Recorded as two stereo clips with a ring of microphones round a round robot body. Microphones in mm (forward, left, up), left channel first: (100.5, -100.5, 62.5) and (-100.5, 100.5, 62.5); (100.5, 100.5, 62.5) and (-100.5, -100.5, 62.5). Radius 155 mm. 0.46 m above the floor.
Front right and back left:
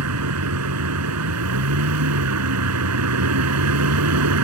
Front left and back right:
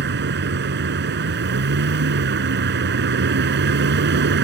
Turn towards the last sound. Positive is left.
turn(degrees=170)